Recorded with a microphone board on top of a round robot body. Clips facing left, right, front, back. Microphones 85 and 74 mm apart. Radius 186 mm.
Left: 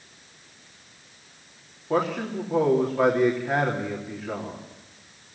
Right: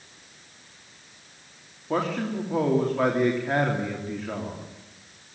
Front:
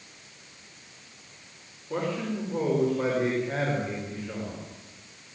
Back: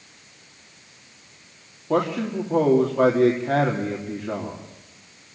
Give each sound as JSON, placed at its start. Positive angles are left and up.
{"t": 1.9, "sound": "a man speaking", "azimuth_deg": 175, "distance_m": 3.0}